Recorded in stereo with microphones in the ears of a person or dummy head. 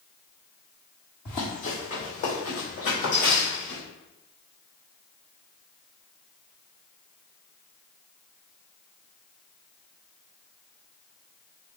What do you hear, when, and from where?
1.2 s running footsteps: 30° left (ahead or behind), 2 m; by 3.8 s 45° left (ahead or behind), 3.5 m